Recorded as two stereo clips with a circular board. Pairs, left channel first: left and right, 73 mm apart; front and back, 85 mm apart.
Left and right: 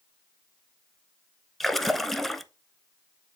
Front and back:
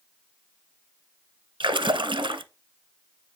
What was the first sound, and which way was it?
A splash, 175° left.